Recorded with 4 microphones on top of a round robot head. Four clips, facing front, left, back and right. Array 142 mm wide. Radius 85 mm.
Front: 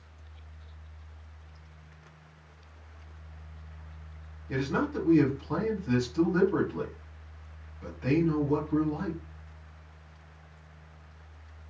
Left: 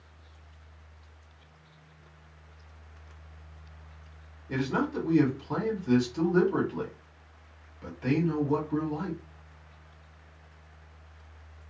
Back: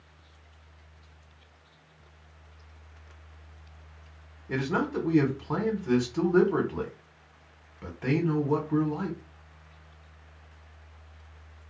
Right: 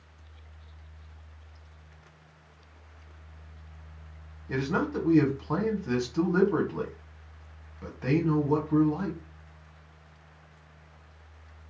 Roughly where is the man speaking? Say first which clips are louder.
Even, back 1 dB; behind right.